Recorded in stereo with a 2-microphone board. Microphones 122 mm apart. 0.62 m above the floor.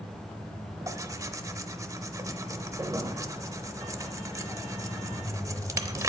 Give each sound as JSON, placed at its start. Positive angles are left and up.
{"t": 0.9, "sound": "tearing paper", "side_deg": -25, "distance_m": 0.6}